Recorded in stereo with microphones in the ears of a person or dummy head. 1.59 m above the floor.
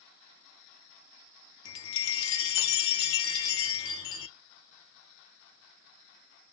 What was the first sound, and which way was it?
A chime, 80° left.